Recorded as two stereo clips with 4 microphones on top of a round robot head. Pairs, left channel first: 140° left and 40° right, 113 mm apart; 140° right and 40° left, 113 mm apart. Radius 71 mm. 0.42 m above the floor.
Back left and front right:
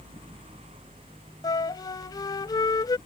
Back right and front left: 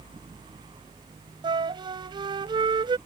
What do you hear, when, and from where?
1.4 s a flute: 85° left